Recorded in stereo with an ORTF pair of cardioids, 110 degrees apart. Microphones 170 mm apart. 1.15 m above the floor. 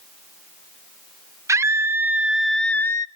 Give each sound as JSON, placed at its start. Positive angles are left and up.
{"t": 1.5, "sound": "a scream", "azimuth_deg": -15, "distance_m": 1.1}